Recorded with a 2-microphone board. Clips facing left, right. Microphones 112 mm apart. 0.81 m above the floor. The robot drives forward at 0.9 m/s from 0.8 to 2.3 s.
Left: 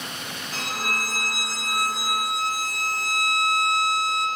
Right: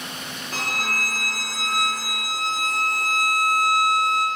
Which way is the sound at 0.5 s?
40° right (ahead or behind).